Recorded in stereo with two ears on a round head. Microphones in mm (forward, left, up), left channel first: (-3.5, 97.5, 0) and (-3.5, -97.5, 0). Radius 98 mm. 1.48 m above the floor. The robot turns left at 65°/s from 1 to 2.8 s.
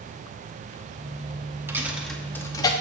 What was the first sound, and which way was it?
A dropped coin, 10° right (ahead or behind).